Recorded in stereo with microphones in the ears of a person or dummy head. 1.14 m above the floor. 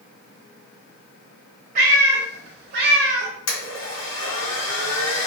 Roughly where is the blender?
Left.